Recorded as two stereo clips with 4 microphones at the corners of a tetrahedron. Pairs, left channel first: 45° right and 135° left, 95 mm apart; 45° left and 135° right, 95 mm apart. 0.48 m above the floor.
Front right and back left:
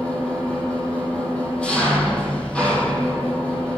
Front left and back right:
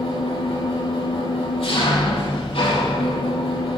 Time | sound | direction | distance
0.0 | an engine running | 35° left | 4.5 m